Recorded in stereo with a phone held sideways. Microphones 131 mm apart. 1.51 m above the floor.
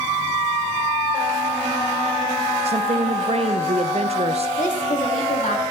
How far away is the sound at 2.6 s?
About 0.5 m.